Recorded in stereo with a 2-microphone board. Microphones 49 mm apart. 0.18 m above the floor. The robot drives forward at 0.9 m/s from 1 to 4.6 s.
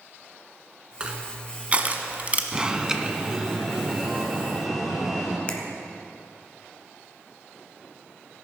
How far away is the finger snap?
About 1.4 m.